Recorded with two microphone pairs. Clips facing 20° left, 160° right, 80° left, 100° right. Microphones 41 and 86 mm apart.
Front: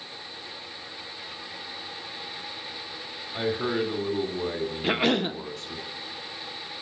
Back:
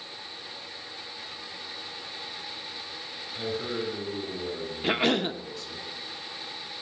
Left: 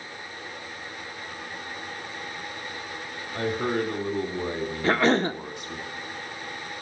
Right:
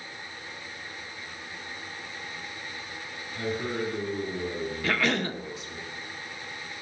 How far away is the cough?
About 0.8 m.